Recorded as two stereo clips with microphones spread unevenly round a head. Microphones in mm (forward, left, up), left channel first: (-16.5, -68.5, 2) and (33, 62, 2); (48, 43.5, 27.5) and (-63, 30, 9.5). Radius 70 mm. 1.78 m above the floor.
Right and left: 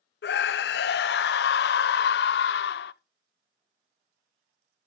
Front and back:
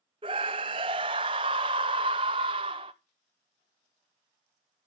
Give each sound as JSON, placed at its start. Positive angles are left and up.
{"t": 0.2, "sound": "a scream", "azimuth_deg": -115, "distance_m": 1.1}